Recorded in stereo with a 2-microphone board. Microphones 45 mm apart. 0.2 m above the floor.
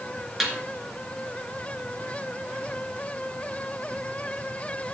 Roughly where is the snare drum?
Centre.